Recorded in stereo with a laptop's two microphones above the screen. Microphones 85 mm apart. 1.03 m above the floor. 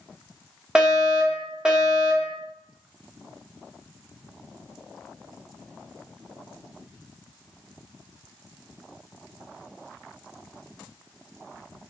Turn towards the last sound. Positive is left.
turn(degrees=-10)  # may be behind; listen again after turning